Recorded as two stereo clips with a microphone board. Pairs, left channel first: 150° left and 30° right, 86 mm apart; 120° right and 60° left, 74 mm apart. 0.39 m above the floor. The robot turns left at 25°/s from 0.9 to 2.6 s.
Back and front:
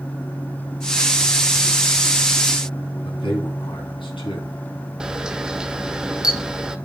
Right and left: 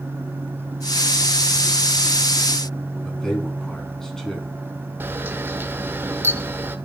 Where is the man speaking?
155° left, 3 m.